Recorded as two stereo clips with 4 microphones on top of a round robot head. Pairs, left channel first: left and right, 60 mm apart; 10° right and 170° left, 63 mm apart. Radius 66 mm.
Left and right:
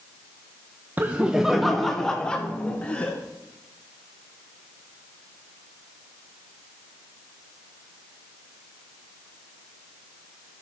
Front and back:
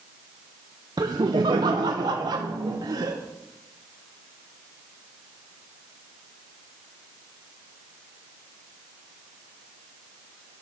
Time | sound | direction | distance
1.0 | laughter | 145° right | 0.6 m